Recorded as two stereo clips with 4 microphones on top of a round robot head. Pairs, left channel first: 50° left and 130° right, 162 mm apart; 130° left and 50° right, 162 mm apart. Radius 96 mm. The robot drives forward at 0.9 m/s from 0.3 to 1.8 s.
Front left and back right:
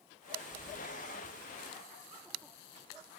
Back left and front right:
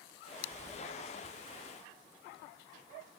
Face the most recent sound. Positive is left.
turn(degrees=10)